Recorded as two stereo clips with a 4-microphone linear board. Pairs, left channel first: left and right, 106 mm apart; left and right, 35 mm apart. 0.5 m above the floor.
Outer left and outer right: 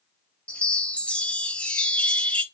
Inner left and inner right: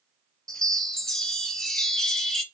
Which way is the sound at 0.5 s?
10° left (ahead or behind).